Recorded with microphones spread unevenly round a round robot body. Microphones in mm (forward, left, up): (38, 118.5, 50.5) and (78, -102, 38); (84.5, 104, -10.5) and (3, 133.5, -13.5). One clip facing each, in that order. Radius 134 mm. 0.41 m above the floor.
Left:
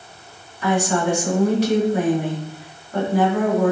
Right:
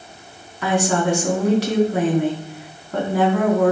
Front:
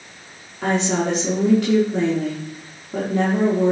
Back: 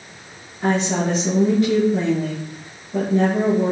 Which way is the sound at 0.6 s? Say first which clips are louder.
Even, even; 65° right.